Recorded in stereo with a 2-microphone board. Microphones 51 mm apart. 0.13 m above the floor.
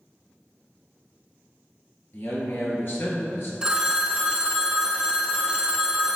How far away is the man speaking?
About 2.0 m.